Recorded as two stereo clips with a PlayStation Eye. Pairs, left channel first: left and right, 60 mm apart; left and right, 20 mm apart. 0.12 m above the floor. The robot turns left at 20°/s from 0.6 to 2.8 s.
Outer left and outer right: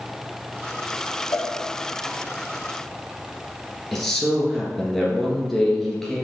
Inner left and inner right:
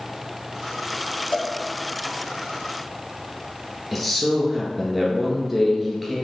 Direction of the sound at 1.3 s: 70° left (ahead or behind).